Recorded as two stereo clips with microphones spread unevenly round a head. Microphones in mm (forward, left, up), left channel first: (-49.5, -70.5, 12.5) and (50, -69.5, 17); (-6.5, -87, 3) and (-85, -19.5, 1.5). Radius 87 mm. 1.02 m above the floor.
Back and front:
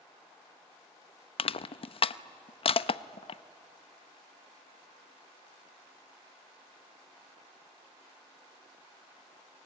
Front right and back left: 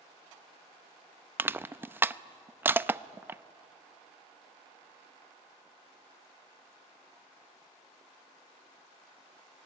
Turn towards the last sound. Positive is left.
turn(degrees=-150)